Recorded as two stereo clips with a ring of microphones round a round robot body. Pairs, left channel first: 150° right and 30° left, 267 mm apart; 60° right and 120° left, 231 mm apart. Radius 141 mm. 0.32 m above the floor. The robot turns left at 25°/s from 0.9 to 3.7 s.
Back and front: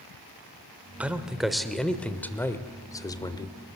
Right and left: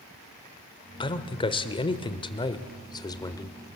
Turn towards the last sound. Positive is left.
turn(degrees=-115)